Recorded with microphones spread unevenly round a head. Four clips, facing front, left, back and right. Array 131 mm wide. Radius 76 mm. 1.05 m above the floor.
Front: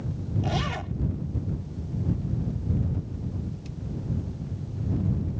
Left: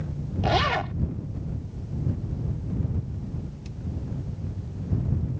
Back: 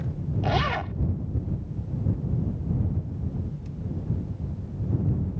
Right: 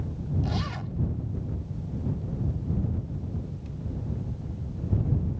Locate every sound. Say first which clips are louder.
0.4 s a zipper: left 9 dB, back 6 dB; 95° left